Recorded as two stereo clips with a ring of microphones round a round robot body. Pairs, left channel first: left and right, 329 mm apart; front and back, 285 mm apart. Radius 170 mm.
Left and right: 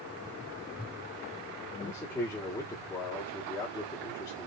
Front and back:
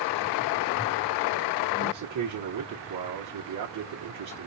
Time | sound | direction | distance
1.8 | a man speaking | 165° left | 1.3 m